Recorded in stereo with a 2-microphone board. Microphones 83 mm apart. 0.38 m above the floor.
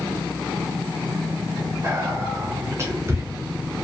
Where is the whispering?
30° right (ahead or behind), 1.0 m.